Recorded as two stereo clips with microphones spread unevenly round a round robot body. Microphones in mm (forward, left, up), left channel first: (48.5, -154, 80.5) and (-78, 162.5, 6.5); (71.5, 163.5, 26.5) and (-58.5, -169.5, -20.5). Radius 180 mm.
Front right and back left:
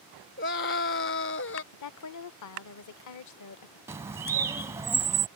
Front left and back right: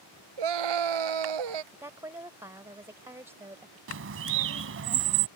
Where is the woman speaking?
35° right.